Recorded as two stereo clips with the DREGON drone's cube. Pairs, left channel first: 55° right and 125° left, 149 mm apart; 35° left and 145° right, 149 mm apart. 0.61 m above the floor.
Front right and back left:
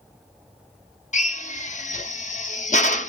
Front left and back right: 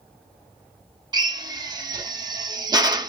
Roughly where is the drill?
Right.